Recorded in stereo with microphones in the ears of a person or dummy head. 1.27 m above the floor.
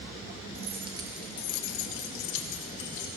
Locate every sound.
0.6 s keys jangling: 25° right (ahead or behind), 1.3 m; by 3.1 s 55° left (ahead or behind), 2.5 m